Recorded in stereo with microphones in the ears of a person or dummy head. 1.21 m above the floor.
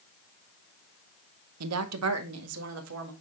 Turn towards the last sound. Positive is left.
turn(degrees=-75)  # may be behind; listen again after turning